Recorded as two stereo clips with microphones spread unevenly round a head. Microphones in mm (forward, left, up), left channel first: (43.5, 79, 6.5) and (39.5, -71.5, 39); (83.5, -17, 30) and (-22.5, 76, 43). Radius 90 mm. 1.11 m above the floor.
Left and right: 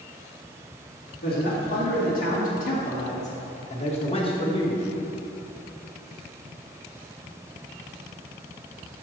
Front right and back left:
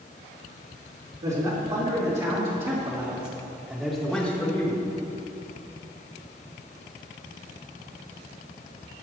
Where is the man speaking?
105° left, 3 m; by 4.8 s 25° left, 1.8 m.